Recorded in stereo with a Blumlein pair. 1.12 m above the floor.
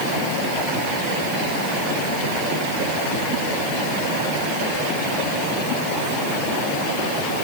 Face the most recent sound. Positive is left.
No sound to turn to.